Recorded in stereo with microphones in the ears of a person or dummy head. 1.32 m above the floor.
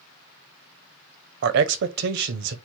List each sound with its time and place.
1.4 s a man speaking: 65° right (ahead or behind), 0.5 m